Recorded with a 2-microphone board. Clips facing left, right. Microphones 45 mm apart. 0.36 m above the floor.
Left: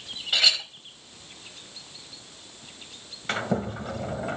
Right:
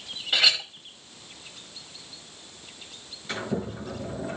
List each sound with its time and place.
0.3 s a clink: 5° right (ahead or behind), 1.4 m
3.3 s a sliding door: 55° left (ahead or behind), 1.5 m